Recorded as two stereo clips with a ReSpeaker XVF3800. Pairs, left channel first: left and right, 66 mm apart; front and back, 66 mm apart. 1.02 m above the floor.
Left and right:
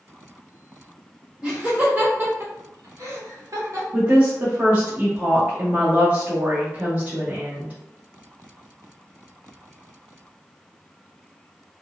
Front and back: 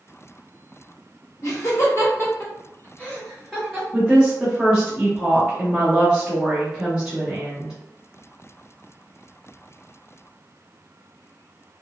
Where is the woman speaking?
120° right, 0.7 m.